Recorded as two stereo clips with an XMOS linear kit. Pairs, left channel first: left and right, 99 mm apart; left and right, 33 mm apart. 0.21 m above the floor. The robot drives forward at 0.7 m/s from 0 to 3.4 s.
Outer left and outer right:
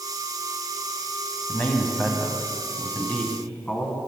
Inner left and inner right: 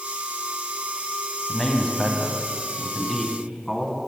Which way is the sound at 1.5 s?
15° left (ahead or behind).